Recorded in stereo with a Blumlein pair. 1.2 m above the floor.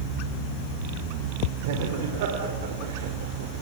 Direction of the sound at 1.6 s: 50° right.